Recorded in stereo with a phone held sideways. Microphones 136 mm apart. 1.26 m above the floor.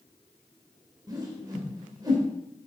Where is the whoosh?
30° right (ahead or behind), 2.5 m.